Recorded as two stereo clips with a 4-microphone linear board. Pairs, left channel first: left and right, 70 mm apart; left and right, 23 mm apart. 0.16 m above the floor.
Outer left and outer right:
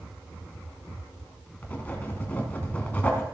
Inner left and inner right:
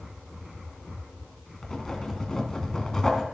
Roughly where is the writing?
Left.